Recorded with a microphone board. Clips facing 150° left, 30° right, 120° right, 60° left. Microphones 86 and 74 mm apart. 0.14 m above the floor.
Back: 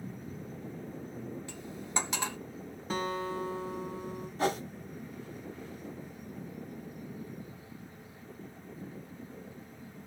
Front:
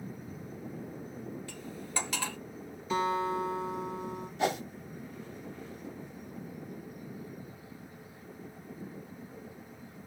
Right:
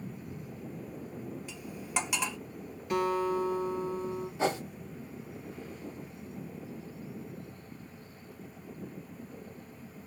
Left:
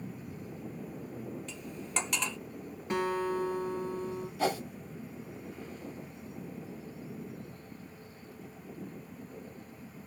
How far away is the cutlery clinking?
About 0.8 m.